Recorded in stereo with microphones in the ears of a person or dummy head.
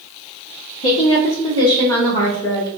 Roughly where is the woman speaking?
Left.